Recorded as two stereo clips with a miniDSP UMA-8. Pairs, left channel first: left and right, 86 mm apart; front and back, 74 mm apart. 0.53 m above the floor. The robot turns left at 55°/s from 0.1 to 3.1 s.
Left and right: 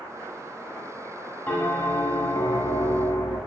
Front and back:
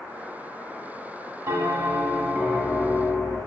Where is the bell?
155° left, 0.5 m; by 3.4 s 65° left, 0.5 m.